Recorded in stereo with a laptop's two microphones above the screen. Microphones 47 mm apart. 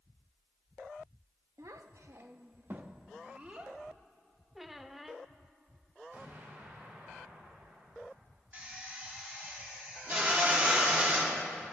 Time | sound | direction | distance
1.6 | a child speaking | 90° right | 0.8 m
4.5 | a squeak | 5° right (ahead or behind) | 0.6 m
6.1 | an explosion | 40° right (ahead or behind) | 4 m
8.5 | a drill | 35° right (ahead or behind) | 2.5 m